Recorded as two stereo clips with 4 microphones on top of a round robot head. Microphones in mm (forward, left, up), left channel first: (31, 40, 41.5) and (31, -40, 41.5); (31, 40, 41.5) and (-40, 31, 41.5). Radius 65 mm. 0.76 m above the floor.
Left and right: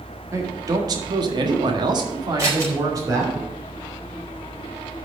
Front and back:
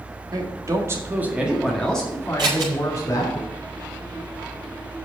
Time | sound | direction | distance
0.3 | a man speaking | 140° right | 2 m
2.4 | scissors | 145° right | 3.5 m